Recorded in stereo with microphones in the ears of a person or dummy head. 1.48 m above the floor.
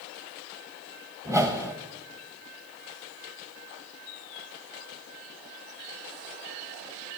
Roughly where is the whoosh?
Centre.